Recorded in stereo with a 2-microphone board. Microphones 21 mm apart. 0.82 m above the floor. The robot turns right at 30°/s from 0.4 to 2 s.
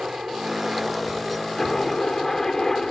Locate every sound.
0.0 s a helicopter: 30° right; by 2.9 s 20° left